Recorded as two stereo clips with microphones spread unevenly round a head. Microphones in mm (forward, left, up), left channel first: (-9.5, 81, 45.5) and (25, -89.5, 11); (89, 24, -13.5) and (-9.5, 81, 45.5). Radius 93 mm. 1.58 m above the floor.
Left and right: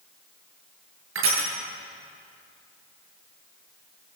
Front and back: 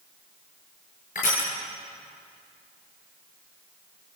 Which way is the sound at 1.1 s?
75° right.